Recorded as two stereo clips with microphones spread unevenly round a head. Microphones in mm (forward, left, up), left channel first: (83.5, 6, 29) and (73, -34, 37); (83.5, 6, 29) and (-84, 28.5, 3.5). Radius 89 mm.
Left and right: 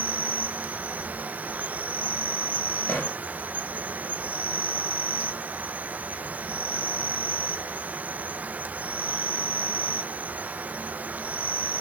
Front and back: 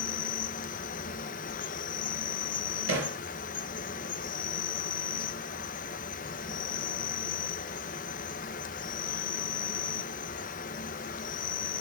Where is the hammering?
155° left, 4.5 m.